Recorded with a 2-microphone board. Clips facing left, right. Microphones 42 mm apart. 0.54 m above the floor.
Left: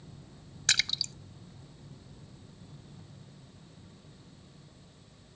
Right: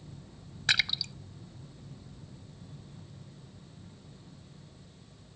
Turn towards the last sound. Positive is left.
turn(degrees=-15)  # may be behind; listen again after turning